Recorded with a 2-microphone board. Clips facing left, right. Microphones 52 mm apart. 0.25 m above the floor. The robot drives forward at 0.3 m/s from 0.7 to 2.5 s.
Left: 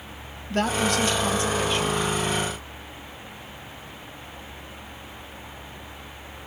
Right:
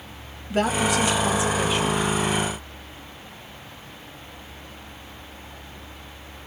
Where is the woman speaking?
10° right (ahead or behind), 1.0 m.